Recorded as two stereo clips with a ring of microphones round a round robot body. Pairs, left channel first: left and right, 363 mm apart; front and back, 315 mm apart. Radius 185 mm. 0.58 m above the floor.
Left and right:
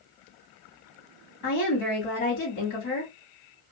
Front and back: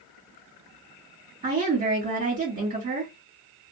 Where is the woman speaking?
120° left, 1.6 m.